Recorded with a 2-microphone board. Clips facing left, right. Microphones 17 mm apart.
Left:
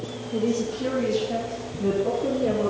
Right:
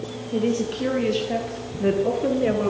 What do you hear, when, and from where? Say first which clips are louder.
0.3 s a woman speaking: right 2 dB; 65° right (ahead or behind), 3 m; by 2.7 s 55° right (ahead or behind), 2 m